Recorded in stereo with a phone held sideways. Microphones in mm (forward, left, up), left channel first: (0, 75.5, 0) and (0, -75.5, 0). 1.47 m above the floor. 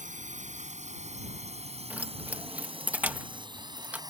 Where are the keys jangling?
10° right (ahead or behind).